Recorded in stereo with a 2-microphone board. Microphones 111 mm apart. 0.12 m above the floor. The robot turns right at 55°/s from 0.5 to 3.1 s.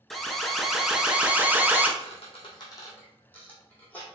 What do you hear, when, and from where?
0.1 s an alarm: centre (ahead or behind), 0.8 m; by 1.9 s 20° right (ahead or behind), 0.8 m
2.0 s a squeak: 70° left (ahead or behind), 2 m; by 4.0 s 15° left (ahead or behind), 2 m